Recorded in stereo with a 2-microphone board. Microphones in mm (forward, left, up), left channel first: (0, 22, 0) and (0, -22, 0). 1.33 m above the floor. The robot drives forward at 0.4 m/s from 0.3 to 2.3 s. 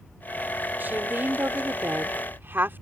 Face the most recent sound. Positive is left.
turn(degrees=-55)  # may be behind; listen again after turning